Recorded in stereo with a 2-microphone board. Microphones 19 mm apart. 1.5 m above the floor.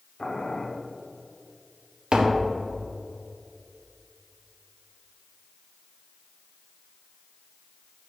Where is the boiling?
55° left (ahead or behind), 1.0 m.